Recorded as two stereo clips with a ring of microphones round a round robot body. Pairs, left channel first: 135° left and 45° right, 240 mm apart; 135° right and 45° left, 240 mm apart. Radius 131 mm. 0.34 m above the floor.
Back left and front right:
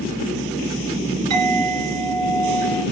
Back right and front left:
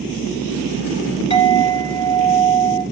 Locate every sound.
1.3 s a clink: 65° right, 3.5 m